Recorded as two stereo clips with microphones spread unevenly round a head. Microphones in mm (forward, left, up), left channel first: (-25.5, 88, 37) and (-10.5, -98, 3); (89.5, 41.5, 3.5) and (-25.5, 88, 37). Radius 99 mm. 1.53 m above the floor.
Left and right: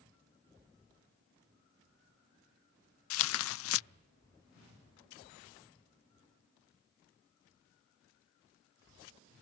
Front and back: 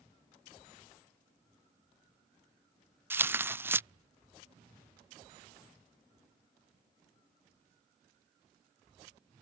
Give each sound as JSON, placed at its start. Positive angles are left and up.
{"t": 3.1, "sound": "tearing paper", "azimuth_deg": 80}